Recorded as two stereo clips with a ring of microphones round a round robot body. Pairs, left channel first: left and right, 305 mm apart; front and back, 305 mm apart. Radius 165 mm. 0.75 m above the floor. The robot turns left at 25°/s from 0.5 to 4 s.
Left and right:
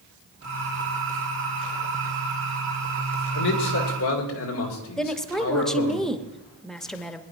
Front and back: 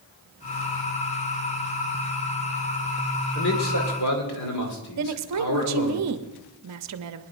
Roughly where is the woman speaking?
Behind.